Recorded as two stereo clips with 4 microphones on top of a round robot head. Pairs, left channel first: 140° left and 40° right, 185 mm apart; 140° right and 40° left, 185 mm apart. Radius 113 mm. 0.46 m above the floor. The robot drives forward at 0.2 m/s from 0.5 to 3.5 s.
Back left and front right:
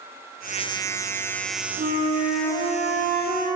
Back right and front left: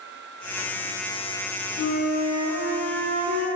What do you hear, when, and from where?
1.8 s a flute: 90° right, 0.7 m; by 3.5 s 115° right, 0.8 m